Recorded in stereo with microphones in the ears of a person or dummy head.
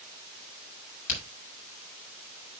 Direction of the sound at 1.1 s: 45° left (ahead or behind).